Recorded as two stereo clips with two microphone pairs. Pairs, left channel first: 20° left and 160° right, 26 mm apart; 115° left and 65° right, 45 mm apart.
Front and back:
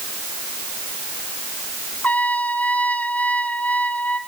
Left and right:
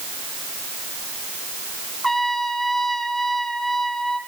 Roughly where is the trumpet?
Ahead left.